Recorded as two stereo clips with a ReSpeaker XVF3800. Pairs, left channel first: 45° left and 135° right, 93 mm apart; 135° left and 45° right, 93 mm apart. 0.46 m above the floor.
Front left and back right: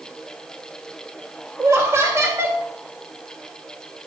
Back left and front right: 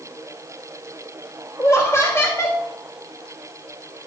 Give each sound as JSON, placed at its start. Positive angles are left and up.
{"t": 1.6, "sound": "laughter", "azimuth_deg": 180, "distance_m": 1.7}